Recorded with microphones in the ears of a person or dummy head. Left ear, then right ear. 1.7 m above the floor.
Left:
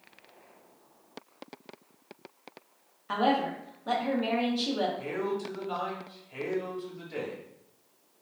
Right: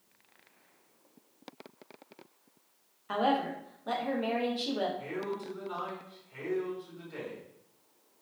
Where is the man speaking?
15° left (ahead or behind), 1.3 m.